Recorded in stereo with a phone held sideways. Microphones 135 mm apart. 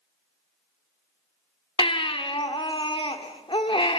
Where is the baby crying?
40° left (ahead or behind), 1.4 m.